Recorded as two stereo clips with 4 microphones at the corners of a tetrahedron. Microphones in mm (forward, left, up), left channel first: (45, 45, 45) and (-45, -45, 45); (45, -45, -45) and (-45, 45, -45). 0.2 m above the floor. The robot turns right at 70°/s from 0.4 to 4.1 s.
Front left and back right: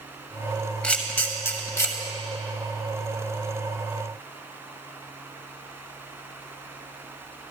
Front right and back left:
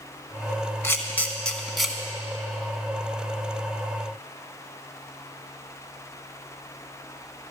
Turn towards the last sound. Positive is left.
turn(degrees=-150)